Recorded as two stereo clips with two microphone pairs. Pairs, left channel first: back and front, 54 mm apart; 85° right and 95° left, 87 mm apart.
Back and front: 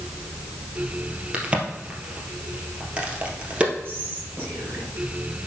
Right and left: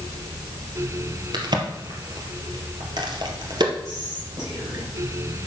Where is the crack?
65° left, 2 m.